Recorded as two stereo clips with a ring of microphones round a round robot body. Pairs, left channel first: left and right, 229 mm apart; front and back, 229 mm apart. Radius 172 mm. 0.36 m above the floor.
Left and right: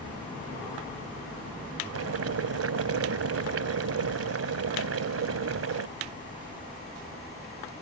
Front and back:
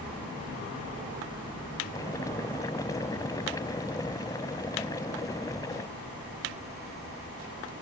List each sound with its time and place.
1.9 s boiling: 80° right